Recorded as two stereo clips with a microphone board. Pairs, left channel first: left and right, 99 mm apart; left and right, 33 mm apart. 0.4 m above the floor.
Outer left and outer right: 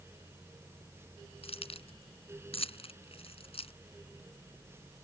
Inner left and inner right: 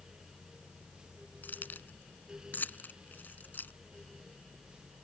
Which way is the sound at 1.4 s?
80° left.